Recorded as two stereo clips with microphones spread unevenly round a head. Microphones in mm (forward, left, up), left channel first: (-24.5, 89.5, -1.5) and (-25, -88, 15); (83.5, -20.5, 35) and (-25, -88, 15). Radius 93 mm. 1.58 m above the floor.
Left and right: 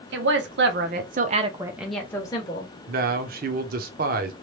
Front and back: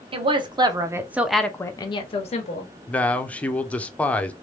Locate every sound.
0.1 s a woman speaking: 100° right, 1.0 m; by 2.7 s 30° left, 0.9 m
2.9 s a man speaking: 45° right, 0.6 m